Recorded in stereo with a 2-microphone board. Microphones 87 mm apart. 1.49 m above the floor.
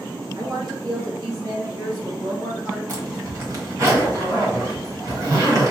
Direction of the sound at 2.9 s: 40° right (ahead or behind).